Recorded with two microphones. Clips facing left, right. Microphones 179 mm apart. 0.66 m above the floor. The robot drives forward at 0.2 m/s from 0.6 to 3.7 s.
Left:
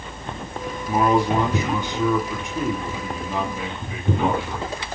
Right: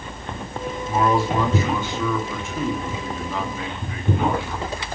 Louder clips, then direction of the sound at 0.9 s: Left 2 dB; 20° left (ahead or behind).